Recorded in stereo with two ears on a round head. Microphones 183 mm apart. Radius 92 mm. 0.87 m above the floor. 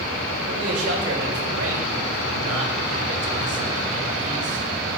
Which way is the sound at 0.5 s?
80° right.